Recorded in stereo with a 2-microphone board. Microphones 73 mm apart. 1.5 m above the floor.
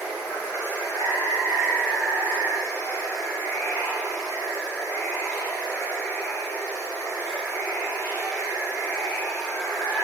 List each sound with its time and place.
0.0 s running water: 45° left (ahead or behind), 1.7 m